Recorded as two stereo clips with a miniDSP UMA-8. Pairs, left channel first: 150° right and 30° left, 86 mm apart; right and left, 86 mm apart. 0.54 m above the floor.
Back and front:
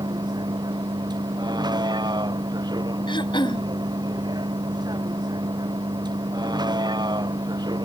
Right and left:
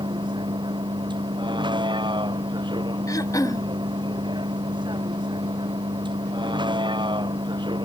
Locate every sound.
0.0 s a vehicle: 65° left
3.1 s throat clearing: 135° right